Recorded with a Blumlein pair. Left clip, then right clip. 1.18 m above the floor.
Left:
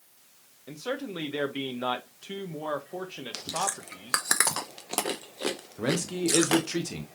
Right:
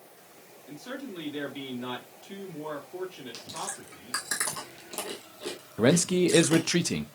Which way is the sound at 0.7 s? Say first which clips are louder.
Left 6 dB; 55° left.